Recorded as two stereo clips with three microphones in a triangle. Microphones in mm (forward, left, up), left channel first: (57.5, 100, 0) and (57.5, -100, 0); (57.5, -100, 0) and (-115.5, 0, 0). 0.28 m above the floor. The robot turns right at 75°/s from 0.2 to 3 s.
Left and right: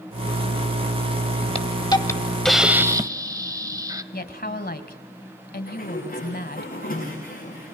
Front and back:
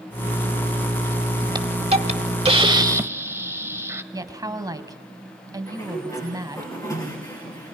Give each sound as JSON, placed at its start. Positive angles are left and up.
{"t": 1.6, "sound": "a hiss", "azimuth_deg": 110, "distance_m": 1.0}
{"t": 4.1, "sound": "a woman speaking", "azimuth_deg": 85, "distance_m": 1.7}
{"t": 5.7, "sound": "a sliding door", "azimuth_deg": 45, "distance_m": 9.0}